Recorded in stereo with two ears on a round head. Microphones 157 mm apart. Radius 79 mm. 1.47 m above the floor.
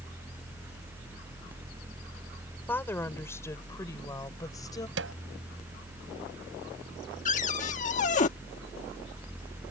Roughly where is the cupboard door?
Left.